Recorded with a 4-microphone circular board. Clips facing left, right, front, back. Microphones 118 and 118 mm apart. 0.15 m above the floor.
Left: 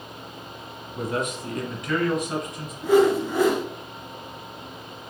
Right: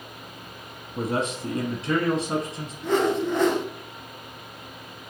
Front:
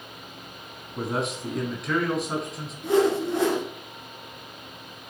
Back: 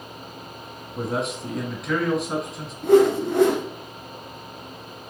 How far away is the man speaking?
About 1.1 m.